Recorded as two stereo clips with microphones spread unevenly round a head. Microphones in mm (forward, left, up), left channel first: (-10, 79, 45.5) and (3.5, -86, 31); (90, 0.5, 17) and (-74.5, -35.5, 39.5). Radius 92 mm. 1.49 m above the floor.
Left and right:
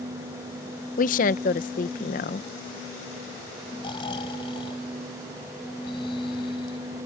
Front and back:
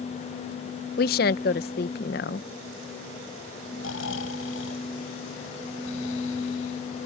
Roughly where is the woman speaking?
Ahead left.